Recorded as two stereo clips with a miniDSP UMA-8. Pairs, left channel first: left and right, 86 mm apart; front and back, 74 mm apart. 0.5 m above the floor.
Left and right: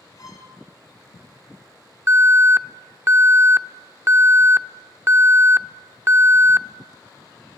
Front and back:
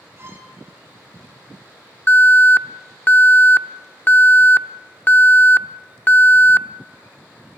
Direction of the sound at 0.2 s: 130° left.